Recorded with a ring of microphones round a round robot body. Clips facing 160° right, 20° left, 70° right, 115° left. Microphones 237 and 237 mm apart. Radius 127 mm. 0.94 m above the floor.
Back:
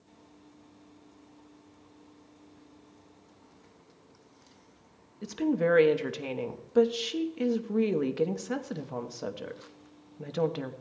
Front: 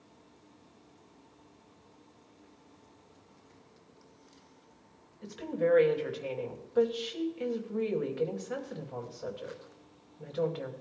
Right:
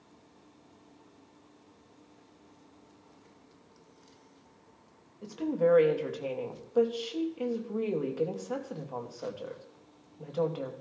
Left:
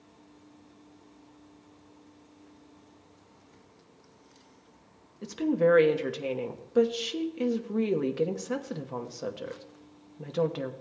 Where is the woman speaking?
175° left, 1.1 m.